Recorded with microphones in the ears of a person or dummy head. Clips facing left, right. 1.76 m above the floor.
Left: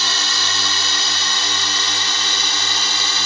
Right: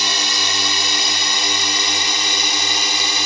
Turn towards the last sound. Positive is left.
turn(degrees=-10)  # may be behind; listen again after turning